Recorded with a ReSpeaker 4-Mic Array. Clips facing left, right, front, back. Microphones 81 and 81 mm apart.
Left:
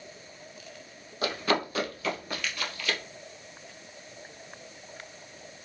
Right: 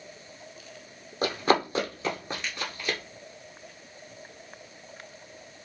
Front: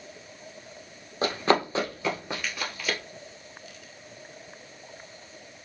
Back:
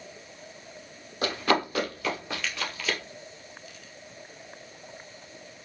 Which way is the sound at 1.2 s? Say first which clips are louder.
Right 4 dB, front 2 dB; 45° right.